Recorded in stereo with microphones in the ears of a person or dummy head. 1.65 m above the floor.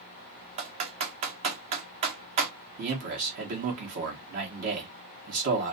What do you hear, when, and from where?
0.6 s typing on a keyboard: 35° right (ahead or behind), 1.1 m
2.8 s a man speaking: 45° right (ahead or behind), 1.4 m